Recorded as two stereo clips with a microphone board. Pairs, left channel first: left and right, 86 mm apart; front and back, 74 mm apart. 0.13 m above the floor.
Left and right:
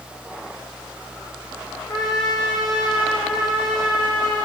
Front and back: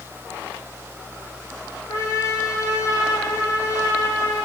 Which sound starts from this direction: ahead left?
A trumpet, at 1.9 s.